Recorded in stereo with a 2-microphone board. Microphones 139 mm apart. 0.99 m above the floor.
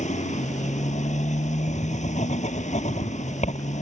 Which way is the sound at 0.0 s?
60° left (ahead or behind).